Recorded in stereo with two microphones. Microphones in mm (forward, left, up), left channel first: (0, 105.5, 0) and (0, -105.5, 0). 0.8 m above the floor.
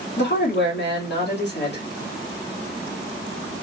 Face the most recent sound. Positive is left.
turn(degrees=55)  # may be behind; listen again after turning